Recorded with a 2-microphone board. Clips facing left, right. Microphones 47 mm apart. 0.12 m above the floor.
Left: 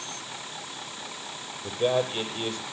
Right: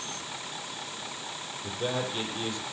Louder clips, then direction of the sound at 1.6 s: Left 7 dB; 35° left (ahead or behind).